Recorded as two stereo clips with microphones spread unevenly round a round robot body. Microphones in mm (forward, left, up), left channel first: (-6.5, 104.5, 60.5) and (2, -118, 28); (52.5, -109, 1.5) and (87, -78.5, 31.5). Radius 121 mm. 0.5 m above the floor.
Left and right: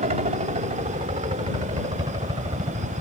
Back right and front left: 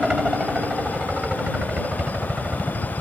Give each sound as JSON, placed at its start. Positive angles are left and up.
{"t": 0.0, "sound": "a helicopter", "azimuth_deg": -30}